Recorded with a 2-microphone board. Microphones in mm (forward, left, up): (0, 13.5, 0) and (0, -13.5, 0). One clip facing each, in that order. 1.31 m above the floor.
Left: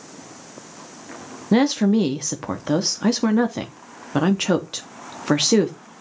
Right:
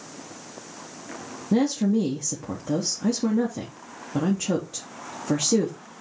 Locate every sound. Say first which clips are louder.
1.5 s a woman speaking: left 4 dB; 60° left (ahead or behind), 0.8 m